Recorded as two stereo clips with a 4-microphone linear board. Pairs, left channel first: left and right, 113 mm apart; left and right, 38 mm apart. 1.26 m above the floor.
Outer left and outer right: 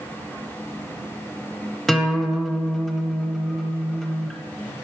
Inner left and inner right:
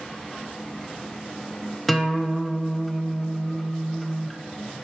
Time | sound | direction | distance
1.9 | a guitar | 5° left (ahead or behind) | 0.7 m